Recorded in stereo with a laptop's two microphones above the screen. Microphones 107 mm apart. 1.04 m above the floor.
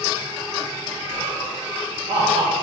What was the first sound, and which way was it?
Laughter, 55° right (ahead or behind).